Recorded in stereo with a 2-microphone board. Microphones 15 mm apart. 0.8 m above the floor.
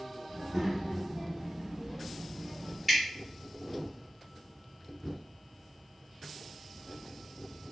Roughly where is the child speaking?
Right.